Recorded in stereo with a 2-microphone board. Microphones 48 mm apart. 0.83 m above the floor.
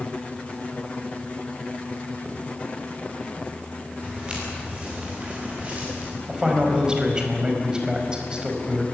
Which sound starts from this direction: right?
Footsteps, at 4.0 s.